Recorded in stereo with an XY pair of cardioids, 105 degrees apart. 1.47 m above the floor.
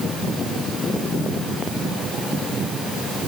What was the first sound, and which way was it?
Only background noise.